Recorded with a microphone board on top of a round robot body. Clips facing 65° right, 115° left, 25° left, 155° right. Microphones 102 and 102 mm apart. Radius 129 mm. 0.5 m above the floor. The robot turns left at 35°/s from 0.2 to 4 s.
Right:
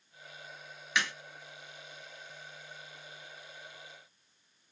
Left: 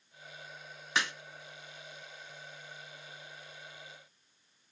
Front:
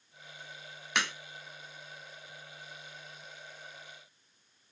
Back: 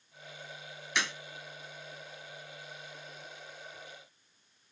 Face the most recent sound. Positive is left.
turn(degrees=-50)